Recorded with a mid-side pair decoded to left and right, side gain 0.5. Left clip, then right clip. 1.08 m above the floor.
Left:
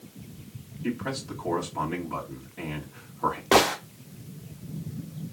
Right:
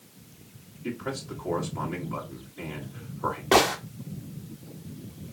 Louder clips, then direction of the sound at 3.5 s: Even; 10° left.